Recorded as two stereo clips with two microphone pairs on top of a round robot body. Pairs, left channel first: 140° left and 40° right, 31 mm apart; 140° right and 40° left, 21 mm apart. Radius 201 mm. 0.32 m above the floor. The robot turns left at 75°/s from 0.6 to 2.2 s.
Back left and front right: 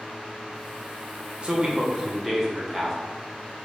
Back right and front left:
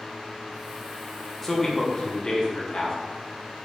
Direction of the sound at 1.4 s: 50° right.